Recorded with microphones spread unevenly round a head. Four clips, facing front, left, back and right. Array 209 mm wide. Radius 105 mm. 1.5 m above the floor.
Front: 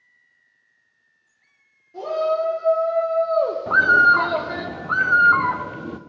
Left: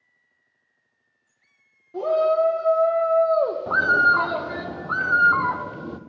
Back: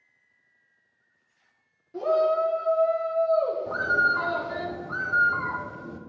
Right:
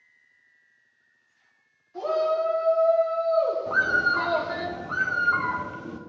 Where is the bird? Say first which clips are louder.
Left 5 dB, front 9 dB; 25° left, 0.5 m.